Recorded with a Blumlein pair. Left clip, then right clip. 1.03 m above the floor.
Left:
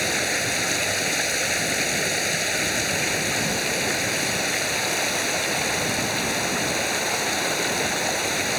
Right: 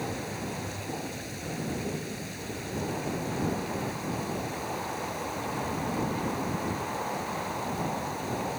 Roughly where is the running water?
Ahead left.